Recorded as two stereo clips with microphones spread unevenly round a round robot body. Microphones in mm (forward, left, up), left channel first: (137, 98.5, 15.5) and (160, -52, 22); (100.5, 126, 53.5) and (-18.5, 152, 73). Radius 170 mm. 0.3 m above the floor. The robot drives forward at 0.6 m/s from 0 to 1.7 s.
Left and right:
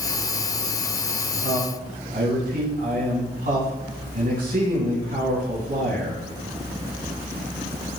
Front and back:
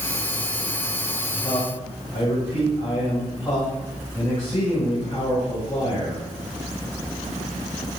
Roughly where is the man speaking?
Right.